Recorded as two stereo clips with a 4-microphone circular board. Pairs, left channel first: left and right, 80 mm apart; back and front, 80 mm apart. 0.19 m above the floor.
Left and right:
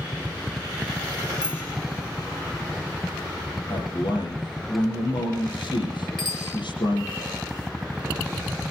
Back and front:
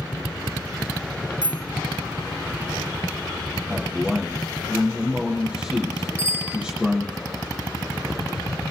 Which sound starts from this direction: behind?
A bicycle bell, at 1.4 s.